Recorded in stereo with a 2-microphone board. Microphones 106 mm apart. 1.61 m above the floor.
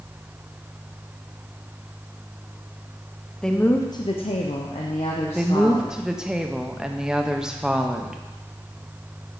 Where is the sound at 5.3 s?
5° right (ahead or behind), 0.7 m.